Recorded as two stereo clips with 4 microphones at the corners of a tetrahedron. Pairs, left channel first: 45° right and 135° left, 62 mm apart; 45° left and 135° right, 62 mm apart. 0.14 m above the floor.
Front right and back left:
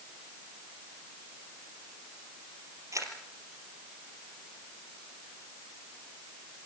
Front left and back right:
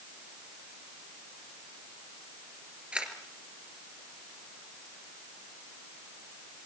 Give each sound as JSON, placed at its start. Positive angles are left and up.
{"t": 2.9, "sound": "a camera shutter", "azimuth_deg": 155, "distance_m": 3.0}